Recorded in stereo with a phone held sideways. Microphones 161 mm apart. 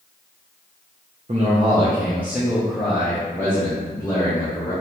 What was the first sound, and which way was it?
A man speaking, 45° right (ahead or behind).